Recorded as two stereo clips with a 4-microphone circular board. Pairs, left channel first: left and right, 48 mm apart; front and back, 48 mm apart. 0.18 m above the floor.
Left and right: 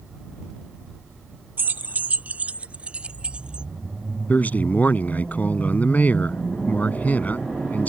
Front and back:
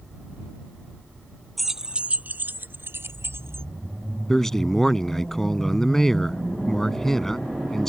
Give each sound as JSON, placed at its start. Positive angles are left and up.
{"t": 1.6, "sound": "keys jangling", "azimuth_deg": -90}
{"t": 4.3, "sound": "a man speaking", "azimuth_deg": 75}